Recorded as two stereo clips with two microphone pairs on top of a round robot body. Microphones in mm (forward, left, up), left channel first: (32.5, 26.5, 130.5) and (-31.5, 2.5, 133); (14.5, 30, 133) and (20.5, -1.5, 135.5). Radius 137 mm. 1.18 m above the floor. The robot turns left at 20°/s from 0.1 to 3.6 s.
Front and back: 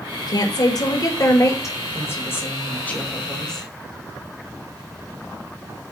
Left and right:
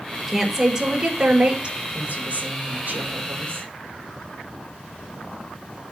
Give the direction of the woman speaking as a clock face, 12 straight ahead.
12 o'clock.